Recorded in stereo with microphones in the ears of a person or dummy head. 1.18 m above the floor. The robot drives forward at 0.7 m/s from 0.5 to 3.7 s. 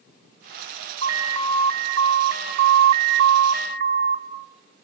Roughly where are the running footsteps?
No running footsteps in this recording.